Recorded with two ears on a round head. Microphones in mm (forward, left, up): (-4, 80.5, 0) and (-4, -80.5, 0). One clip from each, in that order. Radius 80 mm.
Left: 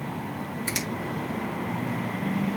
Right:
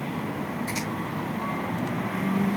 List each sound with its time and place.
0.7 s a finger snap: 60° left (ahead or behind), 6 m